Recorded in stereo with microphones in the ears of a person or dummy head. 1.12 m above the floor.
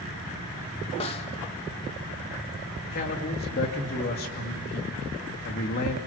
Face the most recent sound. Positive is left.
turn(degrees=45)  # may be behind; listen again after turning